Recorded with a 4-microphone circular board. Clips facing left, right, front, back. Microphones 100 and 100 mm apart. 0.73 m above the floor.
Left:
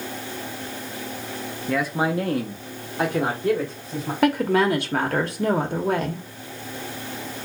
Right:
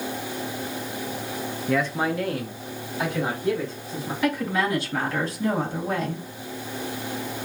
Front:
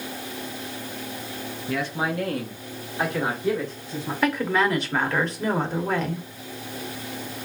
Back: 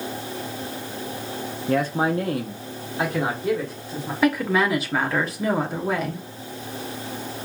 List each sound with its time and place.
1.7 s a man speaking: 170° right, 0.6 m; by 4.1 s 95° left, 2.0 m
4.2 s a woman speaking: 95° left, 1.2 m